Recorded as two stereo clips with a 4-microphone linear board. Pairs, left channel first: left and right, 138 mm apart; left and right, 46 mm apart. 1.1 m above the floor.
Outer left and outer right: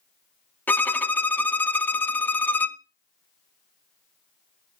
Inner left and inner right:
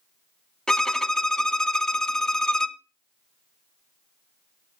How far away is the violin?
About 0.6 m.